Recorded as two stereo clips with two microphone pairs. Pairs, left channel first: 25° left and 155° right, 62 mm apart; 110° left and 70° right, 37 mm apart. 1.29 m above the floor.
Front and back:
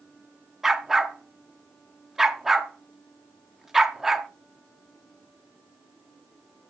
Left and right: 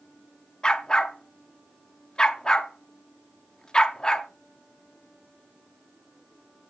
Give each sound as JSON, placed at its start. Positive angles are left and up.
{"t": 0.6, "sound": "a dog barking", "azimuth_deg": 135, "distance_m": 0.8}